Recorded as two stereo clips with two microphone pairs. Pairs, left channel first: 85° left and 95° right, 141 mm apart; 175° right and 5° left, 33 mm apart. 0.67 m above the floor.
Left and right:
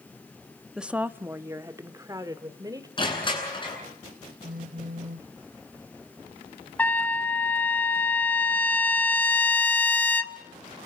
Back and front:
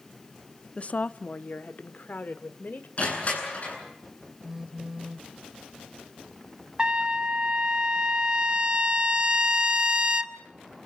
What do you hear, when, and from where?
0.8 s a woman speaking: 175° right, 0.7 m; by 2.9 s 160° right, 2 m
3.0 s crushing: 140° left, 9 m
4.4 s a phone buzzing: 75° right, 1.1 m
6.8 s a trumpet: 10° left, 1.0 m